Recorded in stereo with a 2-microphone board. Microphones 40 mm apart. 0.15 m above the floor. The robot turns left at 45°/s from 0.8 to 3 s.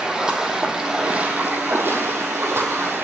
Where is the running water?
20° right, 1.0 m; by 3.0 s 115° right, 1.0 m.